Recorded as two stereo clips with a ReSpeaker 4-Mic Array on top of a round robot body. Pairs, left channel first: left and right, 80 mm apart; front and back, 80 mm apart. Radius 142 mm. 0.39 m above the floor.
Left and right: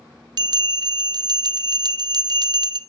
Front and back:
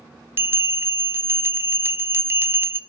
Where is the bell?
120° right, 0.6 m.